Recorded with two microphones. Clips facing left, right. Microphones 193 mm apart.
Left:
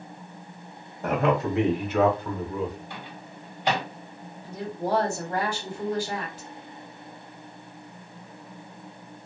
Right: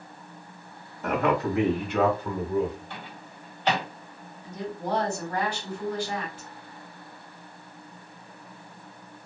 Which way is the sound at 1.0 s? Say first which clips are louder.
Left 1 dB; 35° left (ahead or behind).